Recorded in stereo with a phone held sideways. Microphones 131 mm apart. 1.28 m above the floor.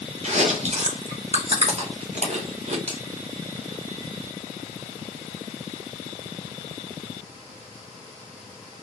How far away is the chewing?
About 0.7 m.